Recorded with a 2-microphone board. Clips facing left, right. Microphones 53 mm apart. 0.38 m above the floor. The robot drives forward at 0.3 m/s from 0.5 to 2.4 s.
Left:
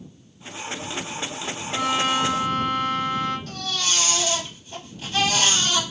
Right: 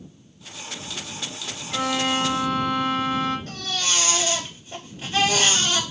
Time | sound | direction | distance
1.7 | a violin | 25° right (ahead or behind) | 1.7 m
3.5 | a baby crying | 30° right (ahead or behind) | 2 m